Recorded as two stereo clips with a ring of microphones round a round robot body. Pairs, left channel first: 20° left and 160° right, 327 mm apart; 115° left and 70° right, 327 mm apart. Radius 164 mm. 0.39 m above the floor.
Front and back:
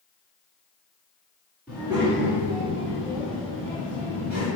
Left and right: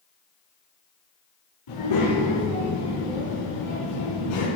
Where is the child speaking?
115° left, 3 m; by 4.5 s 145° left, 3 m.